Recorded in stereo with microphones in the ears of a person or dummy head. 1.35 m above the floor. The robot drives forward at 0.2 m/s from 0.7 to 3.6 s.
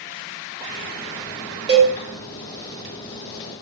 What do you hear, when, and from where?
1.7 s a cowbell: 15° right (ahead or behind), 0.6 m